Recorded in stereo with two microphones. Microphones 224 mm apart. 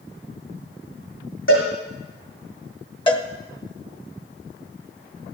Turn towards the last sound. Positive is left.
turn(degrees=20)  # may be behind; listen again after turning